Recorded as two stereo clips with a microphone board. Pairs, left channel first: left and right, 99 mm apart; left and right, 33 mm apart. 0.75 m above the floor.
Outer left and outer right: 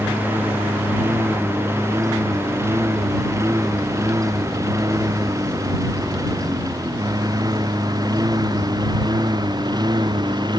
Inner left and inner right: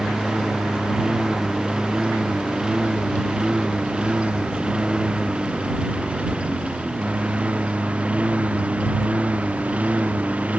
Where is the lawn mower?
20° right (ahead or behind); by 10.6 s 45° right (ahead or behind).